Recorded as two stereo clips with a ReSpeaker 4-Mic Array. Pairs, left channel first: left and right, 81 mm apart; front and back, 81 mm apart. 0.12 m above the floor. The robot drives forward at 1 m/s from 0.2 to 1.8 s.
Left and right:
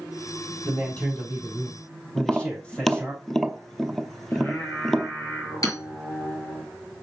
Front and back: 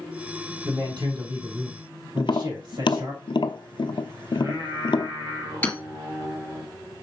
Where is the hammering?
65° left, 2 m.